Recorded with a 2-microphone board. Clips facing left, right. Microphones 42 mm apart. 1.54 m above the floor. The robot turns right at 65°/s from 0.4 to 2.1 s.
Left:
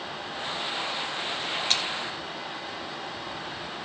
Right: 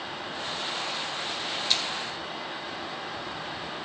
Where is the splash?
50° left (ahead or behind), 5 m; by 1.8 s 40° left (ahead or behind), 5 m.